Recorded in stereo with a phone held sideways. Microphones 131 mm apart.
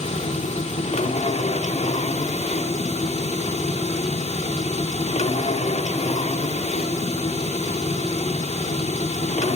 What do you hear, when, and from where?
0.0 s a machine running: 60° left (ahead or behind), 3 m